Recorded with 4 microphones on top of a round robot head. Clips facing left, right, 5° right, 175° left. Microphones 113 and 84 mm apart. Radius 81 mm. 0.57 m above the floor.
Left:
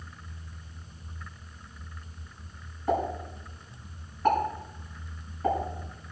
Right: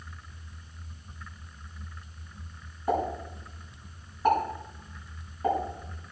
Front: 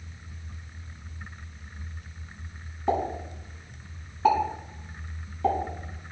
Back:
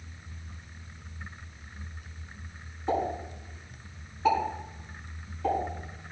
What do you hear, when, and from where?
2.9 s a pop: 10° right, 6.5 m